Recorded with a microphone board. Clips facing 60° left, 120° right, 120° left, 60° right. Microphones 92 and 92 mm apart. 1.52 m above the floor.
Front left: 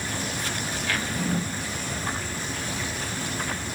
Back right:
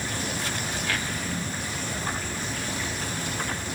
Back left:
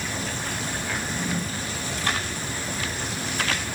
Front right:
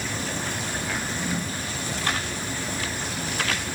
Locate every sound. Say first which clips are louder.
0.9 s a drawer: front left 4 dB, even; 25° left, 1.5 m